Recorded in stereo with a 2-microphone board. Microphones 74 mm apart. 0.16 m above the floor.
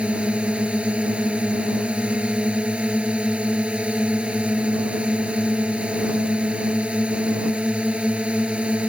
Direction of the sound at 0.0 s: 15° right (ahead or behind).